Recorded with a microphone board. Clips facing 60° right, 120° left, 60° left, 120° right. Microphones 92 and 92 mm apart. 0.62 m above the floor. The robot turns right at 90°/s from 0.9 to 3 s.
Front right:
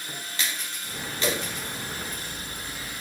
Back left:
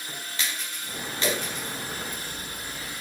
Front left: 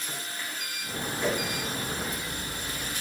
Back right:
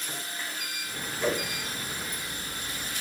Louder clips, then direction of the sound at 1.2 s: Even, back right 1 dB; 105° right.